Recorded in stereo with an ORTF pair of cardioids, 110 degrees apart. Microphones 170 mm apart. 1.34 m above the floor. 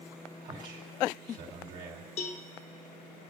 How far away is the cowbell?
About 1.1 m.